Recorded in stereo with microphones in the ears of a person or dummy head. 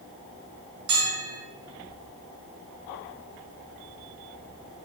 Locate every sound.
0.9 s a bell: 80° right, 2.5 m